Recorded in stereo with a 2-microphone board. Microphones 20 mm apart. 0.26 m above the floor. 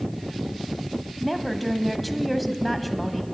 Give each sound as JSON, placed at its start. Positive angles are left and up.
{"t": 1.2, "sound": "a woman speaking", "side_deg": 0, "distance_m": 1.2}